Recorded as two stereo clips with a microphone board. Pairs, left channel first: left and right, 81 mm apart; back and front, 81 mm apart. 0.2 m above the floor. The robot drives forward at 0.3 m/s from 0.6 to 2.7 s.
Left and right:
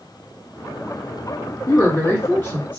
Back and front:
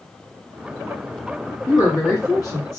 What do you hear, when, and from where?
1.7 s a woman speaking: 150° left, 1.6 m; by 2.8 s 155° left, 1.9 m